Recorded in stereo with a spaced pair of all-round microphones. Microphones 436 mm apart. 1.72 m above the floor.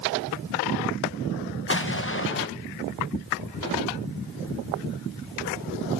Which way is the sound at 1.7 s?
30° left (ahead or behind).